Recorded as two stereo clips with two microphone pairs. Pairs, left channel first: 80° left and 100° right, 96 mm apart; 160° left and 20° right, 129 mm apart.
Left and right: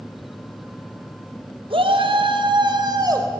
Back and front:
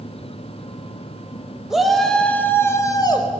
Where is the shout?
110° right, 3.5 m; by 3.3 s 150° right, 3 m.